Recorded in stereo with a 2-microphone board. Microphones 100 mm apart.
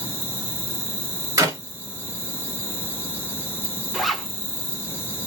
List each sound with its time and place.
0.0 s an insect: 25° left (ahead or behind), 1.0 m
1.4 s a clap: 35° right (ahead or behind), 1.4 m
3.9 s a zipper: centre (ahead or behind), 1.0 m